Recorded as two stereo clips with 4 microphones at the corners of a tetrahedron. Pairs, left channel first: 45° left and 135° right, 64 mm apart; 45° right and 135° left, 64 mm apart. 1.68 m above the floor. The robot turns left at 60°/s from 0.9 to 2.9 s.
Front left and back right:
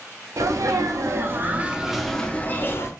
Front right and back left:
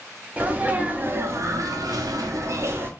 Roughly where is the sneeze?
Behind.